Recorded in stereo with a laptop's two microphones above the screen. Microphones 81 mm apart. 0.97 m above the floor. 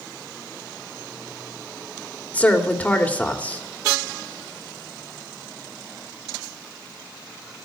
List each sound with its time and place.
2.3 s a woman speaking: 20° left (ahead or behind), 1.9 m